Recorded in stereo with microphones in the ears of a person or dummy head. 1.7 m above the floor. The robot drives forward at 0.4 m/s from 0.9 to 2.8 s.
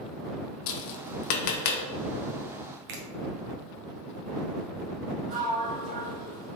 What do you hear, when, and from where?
0.7 s tapping: 65° left (ahead or behind), 0.5 m; by 1.8 s 50° left (ahead or behind), 0.6 m
2.9 s a finger snap: 55° right (ahead or behind), 0.6 m
5.3 s a sliding door: 45° right (ahead or behind), 1.7 m